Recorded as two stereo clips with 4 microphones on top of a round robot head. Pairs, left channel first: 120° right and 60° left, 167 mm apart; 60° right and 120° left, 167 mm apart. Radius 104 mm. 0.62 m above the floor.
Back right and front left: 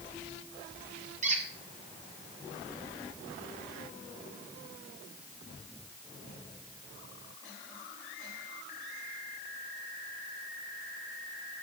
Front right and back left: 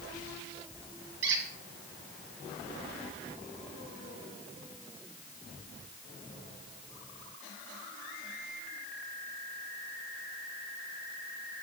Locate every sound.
1.2 s a squeak: 105° left, 2.0 m